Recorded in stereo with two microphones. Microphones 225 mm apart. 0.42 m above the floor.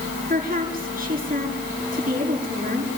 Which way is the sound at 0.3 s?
40° right (ahead or behind).